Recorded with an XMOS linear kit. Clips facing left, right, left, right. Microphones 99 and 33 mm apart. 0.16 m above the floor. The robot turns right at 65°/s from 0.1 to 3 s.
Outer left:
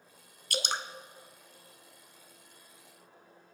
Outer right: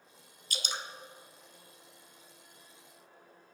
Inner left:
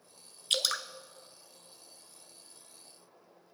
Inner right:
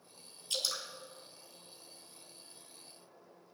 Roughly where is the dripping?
Left.